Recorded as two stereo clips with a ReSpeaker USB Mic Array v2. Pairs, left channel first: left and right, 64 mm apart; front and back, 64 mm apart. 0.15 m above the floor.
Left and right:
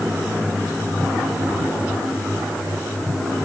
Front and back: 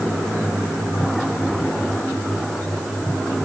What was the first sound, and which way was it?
Only background noise.